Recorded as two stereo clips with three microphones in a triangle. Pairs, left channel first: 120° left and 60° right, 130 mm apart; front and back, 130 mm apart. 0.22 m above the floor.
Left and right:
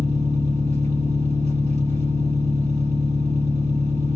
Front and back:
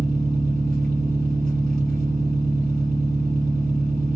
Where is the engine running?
85° right, 2.5 m.